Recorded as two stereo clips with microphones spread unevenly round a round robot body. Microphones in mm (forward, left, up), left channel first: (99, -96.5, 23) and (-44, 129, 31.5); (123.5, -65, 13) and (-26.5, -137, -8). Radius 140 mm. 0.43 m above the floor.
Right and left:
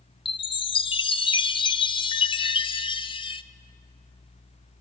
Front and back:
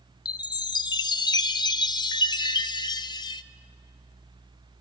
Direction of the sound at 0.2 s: 20° right.